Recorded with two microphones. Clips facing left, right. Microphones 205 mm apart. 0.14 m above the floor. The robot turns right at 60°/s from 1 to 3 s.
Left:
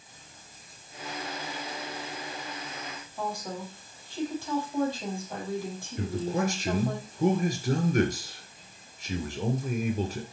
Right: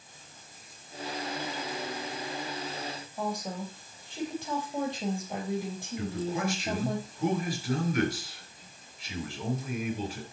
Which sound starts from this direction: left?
A man speaking, at 6.0 s.